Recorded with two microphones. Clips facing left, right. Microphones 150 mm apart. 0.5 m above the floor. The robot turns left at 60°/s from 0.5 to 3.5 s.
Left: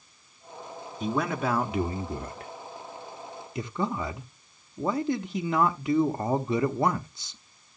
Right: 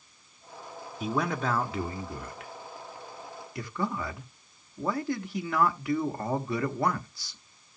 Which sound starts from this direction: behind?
A man speaking, at 1.0 s.